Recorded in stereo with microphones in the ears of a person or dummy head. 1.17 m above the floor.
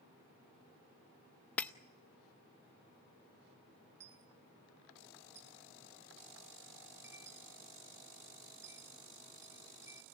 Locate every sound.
1.6 s breaking glass: 15° left (ahead or behind), 0.6 m
4.0 s a dropped coin: 10° right (ahead or behind), 0.5 m